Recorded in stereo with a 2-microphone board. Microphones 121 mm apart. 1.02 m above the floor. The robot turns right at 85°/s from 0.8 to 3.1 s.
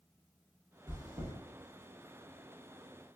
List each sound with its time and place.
0.9 s chewing: 25° right (ahead or behind), 0.9 m; by 1.3 s 55° right (ahead or behind), 0.9 m